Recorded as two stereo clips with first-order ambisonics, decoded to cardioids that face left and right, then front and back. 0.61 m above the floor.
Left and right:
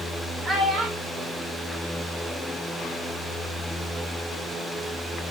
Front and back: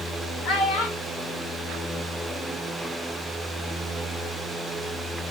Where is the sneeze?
No sneeze in this recording.